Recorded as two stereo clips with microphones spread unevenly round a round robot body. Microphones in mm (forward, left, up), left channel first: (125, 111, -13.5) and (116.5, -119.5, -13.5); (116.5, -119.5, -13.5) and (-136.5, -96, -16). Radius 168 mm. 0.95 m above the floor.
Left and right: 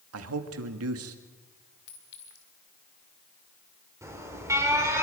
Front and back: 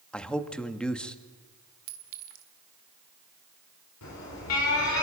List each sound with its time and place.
0.1 s a man speaking: 90° right, 1.9 m
1.9 s a clink: 150° left, 1.7 m
4.0 s an alarm: 15° right, 6 m